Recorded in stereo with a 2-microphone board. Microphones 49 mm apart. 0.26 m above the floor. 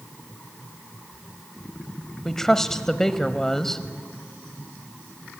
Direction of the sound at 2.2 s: 10° left (ahead or behind).